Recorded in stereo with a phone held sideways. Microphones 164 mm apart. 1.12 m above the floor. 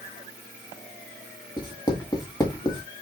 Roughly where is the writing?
Left.